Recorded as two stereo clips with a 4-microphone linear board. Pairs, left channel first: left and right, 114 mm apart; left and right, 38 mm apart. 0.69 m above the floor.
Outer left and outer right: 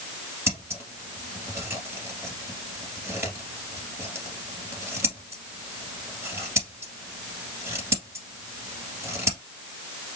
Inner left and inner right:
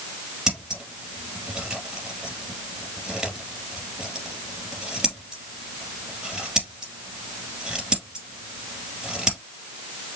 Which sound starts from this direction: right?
Scissors, at 0.5 s.